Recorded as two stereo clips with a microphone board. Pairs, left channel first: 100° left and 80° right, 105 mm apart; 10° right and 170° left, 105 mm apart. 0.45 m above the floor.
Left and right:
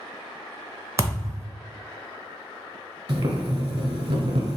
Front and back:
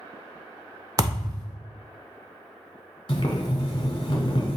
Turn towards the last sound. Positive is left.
turn(degrees=-50)